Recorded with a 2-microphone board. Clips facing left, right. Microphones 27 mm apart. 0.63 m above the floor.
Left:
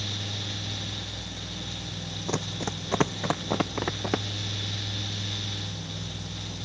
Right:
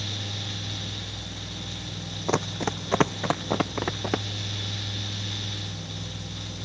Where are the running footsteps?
35° right (ahead or behind); by 4.2 s 5° right (ahead or behind).